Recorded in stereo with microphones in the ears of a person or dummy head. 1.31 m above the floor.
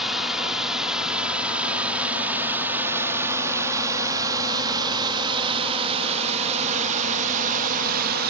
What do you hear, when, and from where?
0.0 s a drone: 5° right (ahead or behind); by 8.3 s 55° right (ahead or behind)